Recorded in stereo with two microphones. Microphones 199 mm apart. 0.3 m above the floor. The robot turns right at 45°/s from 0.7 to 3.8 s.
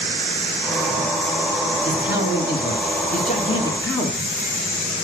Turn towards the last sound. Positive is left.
turn(degrees=165)